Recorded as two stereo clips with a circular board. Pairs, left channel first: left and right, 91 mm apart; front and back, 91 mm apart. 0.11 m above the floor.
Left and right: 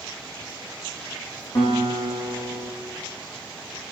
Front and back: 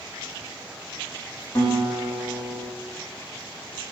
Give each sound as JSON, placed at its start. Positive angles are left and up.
{"t": 1.6, "sound": "a guitar", "azimuth_deg": 60, "distance_m": 6.0}